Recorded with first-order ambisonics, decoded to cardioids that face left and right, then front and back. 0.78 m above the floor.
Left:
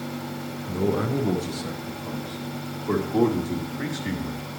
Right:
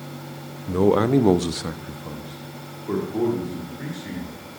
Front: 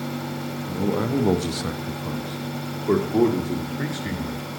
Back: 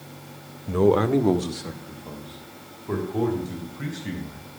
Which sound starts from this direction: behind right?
A man speaking, at 0.7 s.